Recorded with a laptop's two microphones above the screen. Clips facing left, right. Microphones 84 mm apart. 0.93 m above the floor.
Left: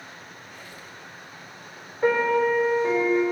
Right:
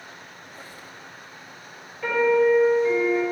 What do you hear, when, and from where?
0.4 s a squeak: 35° right (ahead or behind), 0.8 m
2.0 s a piano: 35° left (ahead or behind), 3.5 m